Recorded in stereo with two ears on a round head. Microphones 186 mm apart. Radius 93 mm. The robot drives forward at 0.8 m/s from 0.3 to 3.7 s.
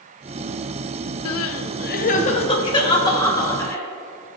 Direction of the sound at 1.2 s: 80° left.